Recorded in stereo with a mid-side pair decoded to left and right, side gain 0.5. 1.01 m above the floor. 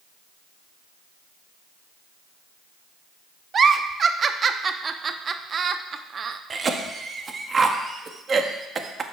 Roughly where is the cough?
Ahead right.